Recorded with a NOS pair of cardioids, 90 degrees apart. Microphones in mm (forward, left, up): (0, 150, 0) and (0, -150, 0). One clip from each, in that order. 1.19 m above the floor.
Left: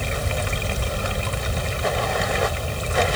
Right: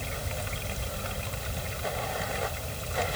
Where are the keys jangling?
No keys jangling in this recording.